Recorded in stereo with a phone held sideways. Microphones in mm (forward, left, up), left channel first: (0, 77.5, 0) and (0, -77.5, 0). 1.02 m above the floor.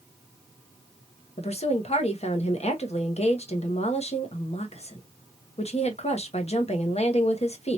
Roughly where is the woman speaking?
Left.